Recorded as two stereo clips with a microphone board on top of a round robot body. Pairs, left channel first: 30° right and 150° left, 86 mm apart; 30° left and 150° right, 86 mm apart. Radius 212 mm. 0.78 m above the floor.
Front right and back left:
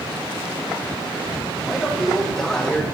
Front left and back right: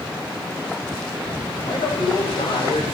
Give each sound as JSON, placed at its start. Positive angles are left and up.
{"t": 1.6, "sound": "a man speaking", "azimuth_deg": 60, "distance_m": 5.0}